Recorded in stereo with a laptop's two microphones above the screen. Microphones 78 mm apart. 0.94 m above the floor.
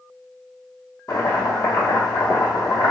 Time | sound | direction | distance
1.1 | chopping | 45° left (ahead or behind) | 0.8 m